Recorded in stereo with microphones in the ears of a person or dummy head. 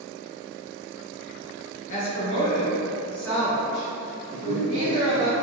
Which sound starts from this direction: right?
A man speaking, at 4.3 s.